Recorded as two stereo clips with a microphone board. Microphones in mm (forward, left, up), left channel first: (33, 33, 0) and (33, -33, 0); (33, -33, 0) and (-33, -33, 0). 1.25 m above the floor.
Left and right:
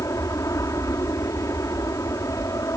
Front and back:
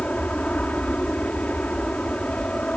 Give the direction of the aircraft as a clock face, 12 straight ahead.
10 o'clock.